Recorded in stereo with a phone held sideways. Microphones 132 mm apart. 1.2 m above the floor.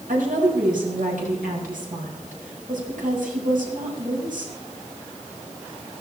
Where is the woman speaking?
80° right, 6.5 m.